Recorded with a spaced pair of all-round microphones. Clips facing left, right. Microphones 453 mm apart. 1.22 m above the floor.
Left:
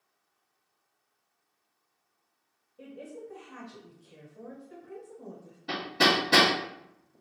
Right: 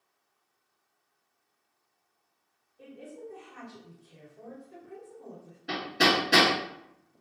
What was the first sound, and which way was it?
A woman speaking, 80° left.